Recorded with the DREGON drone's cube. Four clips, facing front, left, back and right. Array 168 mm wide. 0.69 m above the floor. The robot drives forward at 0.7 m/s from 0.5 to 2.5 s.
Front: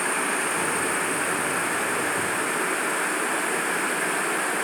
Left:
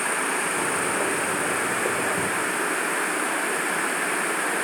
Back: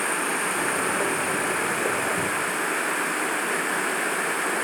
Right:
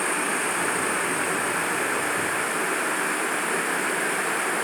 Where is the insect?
125° right, 7.5 m; by 4.6 s 135° right, 8.5 m.